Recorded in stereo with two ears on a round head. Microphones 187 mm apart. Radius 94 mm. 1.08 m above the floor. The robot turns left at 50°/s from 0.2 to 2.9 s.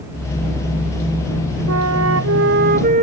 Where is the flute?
80° right; by 3.0 s 140° right.